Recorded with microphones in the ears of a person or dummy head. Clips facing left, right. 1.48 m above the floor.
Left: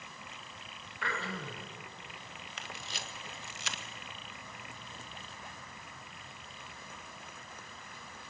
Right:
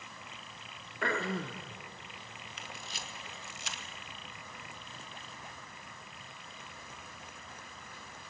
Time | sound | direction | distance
1.0 | throat clearing | 45° right (ahead or behind) | 1.4 m
2.6 | a camera shutter | 65° left (ahead or behind) | 1.6 m